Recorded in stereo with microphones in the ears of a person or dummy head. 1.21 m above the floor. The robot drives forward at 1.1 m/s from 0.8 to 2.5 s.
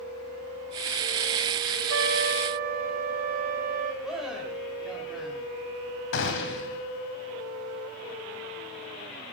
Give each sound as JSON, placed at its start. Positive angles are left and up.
{"t": 1.9, "sound": "a trumpet", "side_deg": -75, "distance_m": 1.0}
{"t": 4.0, "sound": "a man speaking", "side_deg": 0, "distance_m": 5.0}
{"t": 6.1, "sound": "a gunshot", "side_deg": 60, "distance_m": 2.5}